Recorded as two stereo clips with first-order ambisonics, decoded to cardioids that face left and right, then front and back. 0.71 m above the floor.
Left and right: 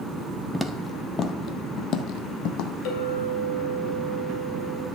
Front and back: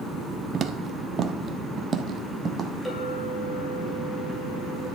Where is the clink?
80° left, 2.5 m.